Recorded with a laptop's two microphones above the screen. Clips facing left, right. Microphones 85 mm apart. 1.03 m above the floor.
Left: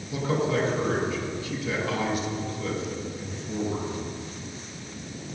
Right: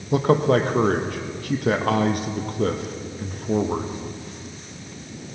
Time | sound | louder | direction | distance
0.1 | a man speaking | right 8 dB | 55° right (ahead or behind) | 0.7 m